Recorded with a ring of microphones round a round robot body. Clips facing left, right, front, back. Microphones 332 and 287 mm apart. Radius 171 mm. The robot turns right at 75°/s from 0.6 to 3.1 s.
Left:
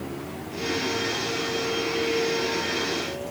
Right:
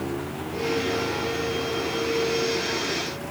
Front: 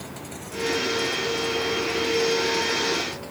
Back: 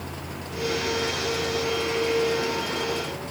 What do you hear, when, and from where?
Only background noise.